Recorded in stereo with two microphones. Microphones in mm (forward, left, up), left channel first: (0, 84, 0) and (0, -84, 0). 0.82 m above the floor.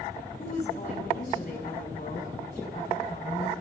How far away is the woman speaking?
About 5.5 m.